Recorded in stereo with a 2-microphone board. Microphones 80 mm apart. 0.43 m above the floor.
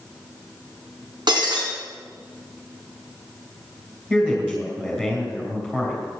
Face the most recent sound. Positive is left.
turn(degrees=-5)  # may be behind; listen again after turning